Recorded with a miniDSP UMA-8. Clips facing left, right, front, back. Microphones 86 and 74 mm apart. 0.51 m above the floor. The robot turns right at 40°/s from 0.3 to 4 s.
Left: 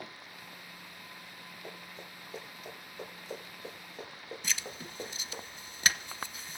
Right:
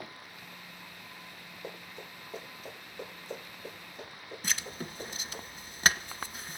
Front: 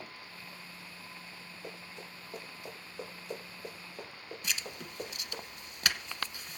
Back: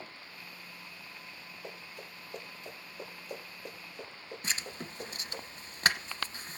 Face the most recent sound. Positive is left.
turn(degrees=-125)